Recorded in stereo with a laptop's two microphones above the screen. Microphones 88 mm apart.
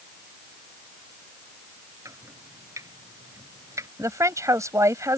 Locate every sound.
2.0 s chopping: 35° right (ahead or behind)
4.0 s a woman speaking: 40° right (ahead or behind)